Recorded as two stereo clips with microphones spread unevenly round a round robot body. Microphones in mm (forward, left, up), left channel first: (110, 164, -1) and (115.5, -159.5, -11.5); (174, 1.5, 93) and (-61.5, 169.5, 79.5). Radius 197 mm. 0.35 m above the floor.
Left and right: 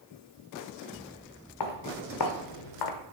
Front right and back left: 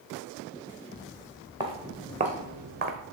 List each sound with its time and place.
1.6 s footsteps: 70° left, 1.7 m; by 3.0 s 90° left, 1.0 m